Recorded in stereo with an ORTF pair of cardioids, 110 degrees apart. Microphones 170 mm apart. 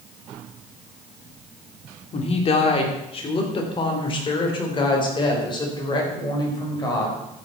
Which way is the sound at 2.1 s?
40° left.